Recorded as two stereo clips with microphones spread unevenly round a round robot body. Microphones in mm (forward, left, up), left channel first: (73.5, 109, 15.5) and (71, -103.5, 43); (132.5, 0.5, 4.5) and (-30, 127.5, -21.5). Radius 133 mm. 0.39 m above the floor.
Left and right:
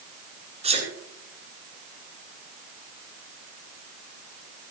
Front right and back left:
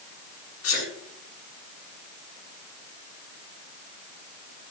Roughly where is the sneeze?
Ahead right.